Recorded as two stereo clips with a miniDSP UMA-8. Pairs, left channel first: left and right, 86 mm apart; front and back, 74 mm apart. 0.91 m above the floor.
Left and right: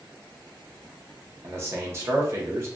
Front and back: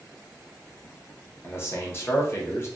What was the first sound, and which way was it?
A man speaking, 45° right.